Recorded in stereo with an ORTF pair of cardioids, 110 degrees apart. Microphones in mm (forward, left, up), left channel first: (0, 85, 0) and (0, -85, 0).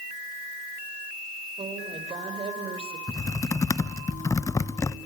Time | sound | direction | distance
1.6 | a woman speaking | 30° right | 4.5 m
3.1 | typing on a keyboard | 20° left | 1.0 m